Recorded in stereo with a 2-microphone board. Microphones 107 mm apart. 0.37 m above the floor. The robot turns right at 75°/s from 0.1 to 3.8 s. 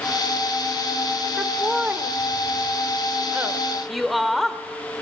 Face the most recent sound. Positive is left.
turn(degrees=0)  # may be behind; listen again after turning